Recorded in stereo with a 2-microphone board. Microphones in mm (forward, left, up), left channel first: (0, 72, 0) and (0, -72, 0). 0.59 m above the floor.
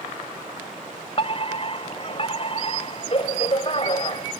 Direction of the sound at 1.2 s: 40° left (ahead or behind).